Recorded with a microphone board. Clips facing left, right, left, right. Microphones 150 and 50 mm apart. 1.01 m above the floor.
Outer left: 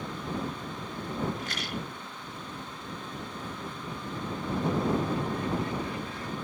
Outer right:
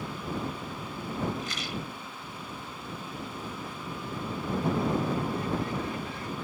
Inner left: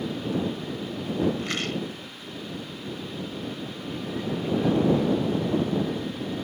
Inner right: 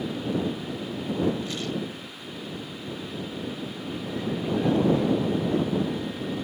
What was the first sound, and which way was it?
A rattle, 60° left (ahead or behind).